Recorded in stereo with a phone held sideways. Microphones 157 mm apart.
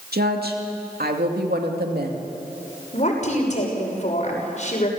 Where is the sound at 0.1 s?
85° right, 2.5 m.